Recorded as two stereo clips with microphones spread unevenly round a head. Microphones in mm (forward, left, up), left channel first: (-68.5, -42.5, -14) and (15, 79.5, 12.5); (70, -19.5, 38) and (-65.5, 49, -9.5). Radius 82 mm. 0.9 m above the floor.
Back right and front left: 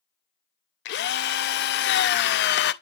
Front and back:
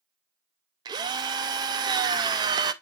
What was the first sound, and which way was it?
A drill, 140° right.